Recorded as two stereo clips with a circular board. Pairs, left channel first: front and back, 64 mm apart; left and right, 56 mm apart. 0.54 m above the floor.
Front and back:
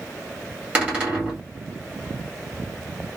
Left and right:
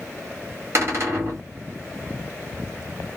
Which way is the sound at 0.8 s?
115° right.